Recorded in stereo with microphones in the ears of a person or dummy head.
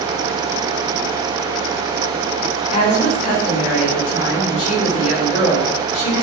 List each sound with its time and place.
2.7 s a woman speaking: 45° left (ahead or behind), 4 m